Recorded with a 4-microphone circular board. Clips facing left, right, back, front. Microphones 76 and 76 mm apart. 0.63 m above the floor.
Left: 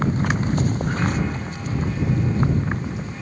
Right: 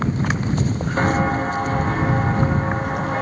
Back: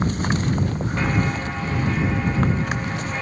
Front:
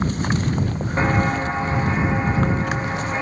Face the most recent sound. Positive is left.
turn(degrees=-70)